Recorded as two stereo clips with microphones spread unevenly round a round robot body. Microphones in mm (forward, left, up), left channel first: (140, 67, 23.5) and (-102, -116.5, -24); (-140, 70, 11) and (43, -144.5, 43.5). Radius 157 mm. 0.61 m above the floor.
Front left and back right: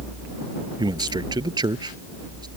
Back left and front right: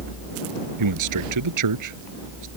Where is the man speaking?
65° right.